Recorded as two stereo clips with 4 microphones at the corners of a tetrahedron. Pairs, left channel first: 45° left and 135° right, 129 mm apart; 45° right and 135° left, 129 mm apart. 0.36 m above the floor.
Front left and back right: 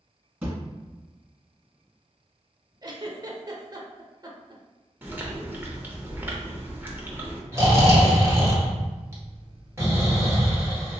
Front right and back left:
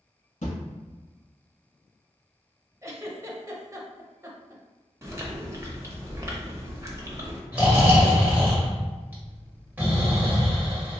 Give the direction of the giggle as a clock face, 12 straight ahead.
6 o'clock.